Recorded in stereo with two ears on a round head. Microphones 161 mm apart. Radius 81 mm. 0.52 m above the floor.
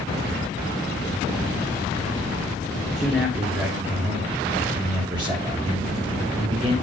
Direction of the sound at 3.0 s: 5° right (ahead or behind).